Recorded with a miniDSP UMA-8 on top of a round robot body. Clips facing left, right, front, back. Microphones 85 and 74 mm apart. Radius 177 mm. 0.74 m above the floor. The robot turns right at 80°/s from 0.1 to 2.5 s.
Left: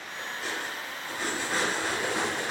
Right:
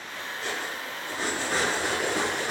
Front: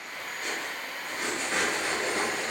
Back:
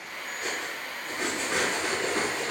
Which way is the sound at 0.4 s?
165° left.